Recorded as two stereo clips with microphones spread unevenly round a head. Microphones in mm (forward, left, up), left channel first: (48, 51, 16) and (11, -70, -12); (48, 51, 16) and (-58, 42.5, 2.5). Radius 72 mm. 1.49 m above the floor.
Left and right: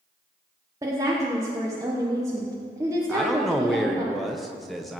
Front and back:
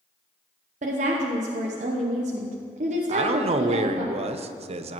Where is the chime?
I don't hear a chime.